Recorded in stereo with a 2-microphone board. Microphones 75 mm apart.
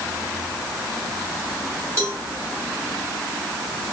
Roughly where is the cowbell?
Right.